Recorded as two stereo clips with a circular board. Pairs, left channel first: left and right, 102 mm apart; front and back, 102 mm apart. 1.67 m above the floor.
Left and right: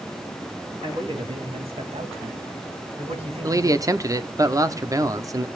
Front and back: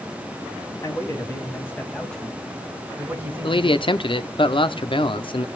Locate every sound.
0.8 s a man speaking: 55° right, 3.5 m; by 3.9 s 125° right, 3 m
3.4 s a man speaking: 35° right, 0.8 m